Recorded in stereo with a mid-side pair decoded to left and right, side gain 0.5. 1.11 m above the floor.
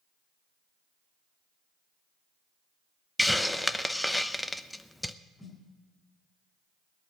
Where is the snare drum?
15° left, 4.5 m.